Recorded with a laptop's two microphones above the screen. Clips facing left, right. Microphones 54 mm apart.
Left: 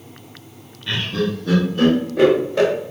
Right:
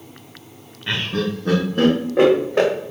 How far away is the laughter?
About 0.8 m.